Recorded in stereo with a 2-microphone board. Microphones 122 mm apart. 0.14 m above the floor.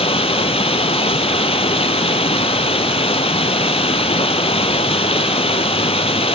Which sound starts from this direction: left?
Running water, at 0.0 s.